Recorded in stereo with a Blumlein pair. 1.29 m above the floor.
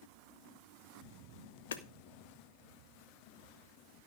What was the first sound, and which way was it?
Hammering, 60° left.